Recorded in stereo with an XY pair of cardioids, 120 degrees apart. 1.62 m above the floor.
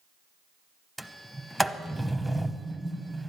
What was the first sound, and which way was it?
A sliding door, straight ahead.